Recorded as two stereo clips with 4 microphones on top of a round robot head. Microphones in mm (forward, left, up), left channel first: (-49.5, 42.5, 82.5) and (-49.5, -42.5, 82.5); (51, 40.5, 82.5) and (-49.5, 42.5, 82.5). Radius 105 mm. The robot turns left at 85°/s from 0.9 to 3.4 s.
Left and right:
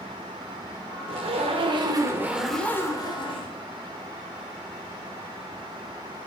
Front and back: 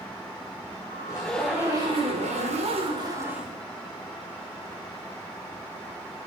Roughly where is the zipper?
Ahead right.